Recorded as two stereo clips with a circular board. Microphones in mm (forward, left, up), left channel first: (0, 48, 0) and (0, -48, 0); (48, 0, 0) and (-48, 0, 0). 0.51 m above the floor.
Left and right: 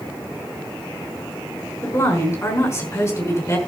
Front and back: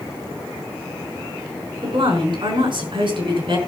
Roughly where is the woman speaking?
Behind left.